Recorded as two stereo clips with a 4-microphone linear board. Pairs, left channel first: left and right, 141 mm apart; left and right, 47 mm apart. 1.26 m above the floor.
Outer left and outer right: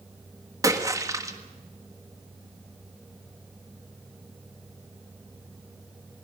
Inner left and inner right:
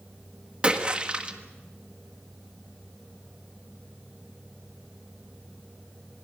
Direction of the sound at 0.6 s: 25° right (ahead or behind).